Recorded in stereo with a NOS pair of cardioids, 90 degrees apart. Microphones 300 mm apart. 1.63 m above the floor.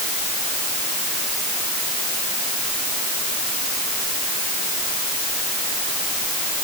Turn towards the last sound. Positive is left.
No sound to turn to.